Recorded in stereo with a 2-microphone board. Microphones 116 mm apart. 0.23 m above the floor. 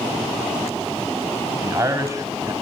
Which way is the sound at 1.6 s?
30° right (ahead or behind).